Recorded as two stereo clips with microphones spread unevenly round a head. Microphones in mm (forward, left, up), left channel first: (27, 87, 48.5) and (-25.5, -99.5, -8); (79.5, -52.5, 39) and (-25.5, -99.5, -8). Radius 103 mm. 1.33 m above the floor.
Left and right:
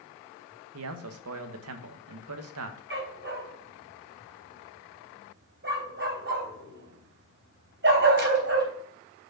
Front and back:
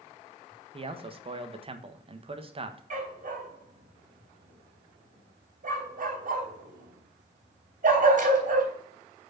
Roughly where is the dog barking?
Behind right.